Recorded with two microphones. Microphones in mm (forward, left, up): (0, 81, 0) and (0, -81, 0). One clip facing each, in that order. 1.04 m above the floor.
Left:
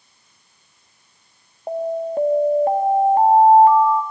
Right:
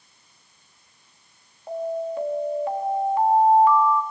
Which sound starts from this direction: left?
An alarm, at 1.7 s.